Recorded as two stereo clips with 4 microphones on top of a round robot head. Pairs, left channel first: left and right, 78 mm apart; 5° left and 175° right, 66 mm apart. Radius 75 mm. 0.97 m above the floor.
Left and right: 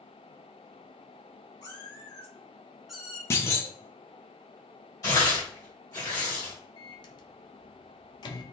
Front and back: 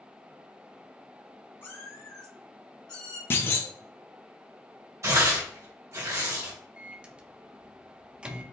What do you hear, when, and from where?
1.6 s a cat meowing: 55° left, 2.0 m; by 3.2 s 15° right, 1.7 m
3.3 s a clunk: 45° left, 0.6 m
5.0 s tearing paper: 145° left, 1.9 m
6.8 s a microwave: 110° left, 0.7 m